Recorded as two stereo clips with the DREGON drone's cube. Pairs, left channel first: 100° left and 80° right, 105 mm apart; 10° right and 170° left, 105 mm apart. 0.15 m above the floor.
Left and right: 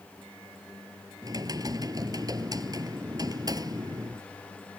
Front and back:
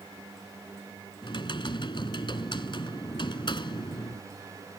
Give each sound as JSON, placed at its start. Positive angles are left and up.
{"t": 1.2, "sound": "typing on a keyboard", "azimuth_deg": -35}